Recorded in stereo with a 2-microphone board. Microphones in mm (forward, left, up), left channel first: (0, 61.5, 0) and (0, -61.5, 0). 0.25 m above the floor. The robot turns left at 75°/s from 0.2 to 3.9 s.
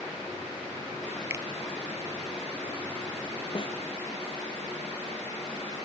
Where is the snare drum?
40° left (ahead or behind); by 3.8 s 60° left (ahead or behind).